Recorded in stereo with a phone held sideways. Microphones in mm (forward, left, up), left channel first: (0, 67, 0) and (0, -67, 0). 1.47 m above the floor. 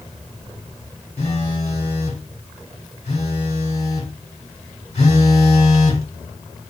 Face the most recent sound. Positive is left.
turn(degrees=45)  # may be behind; listen again after turning